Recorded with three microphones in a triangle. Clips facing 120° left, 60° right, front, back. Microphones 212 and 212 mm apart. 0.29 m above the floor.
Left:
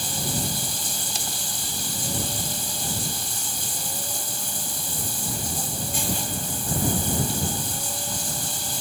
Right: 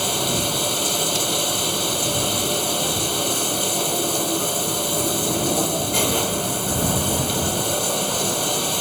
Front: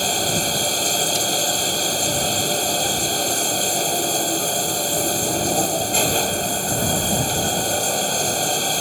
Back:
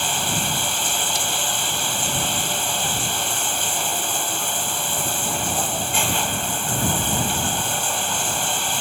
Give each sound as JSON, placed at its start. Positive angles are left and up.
{"t": 0.0, "sound": "running water", "azimuth_deg": -50}